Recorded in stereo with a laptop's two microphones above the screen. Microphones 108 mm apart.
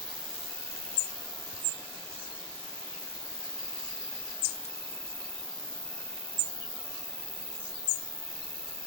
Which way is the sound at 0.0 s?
15° left (ahead or behind).